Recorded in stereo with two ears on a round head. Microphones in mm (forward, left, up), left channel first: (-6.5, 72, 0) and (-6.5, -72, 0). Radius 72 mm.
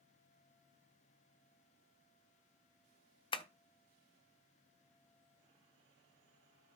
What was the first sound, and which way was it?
Tapping, 30° left (ahead or behind).